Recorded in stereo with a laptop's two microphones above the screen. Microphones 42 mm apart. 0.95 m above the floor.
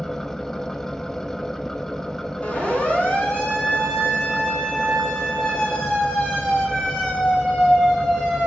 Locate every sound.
0.0 s an engine running: 10° left (ahead or behind), 0.9 m
2.4 s a siren: 25° left (ahead or behind), 9 m; by 8.5 s 10° left (ahead or behind), 13 m